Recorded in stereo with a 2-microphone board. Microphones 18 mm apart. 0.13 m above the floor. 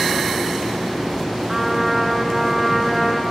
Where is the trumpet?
15° right (ahead or behind), 1.2 m.